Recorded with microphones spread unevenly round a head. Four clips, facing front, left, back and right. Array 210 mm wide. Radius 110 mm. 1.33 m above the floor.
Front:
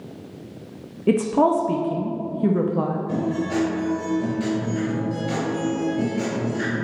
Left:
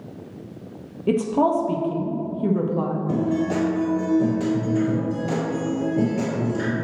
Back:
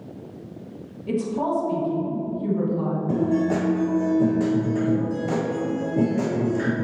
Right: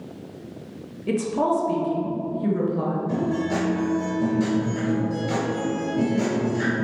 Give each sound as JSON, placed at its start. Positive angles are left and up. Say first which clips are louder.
{"t": 1.1, "sound": "a woman speaking", "louder": "left 3 dB, front 6 dB", "azimuth_deg": 20, "distance_m": 0.7}
{"t": 3.1, "sound": "a guitar", "louder": "left 4 dB, back 3 dB", "azimuth_deg": 160, "distance_m": 1.7}